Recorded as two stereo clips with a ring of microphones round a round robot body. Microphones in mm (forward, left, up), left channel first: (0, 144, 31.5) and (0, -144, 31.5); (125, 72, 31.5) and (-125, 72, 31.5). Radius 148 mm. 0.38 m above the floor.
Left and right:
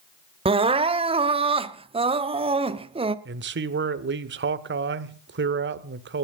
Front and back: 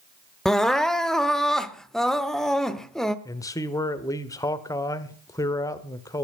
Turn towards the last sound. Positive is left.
turn(degrees=-70)